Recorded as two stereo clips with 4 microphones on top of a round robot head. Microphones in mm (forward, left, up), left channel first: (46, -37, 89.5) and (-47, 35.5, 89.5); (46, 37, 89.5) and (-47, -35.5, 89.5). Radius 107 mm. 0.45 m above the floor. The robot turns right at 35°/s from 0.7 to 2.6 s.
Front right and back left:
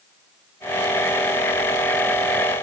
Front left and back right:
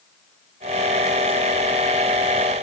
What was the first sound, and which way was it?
Only background noise.